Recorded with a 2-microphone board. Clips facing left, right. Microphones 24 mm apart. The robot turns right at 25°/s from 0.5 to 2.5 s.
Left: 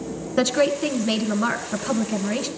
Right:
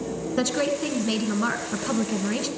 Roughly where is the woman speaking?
Centre.